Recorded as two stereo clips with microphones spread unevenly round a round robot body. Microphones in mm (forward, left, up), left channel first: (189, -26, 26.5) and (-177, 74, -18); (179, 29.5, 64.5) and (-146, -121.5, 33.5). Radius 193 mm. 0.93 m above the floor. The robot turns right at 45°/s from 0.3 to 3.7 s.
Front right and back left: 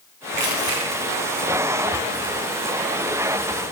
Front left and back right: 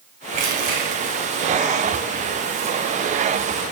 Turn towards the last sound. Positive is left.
turn(degrees=-35)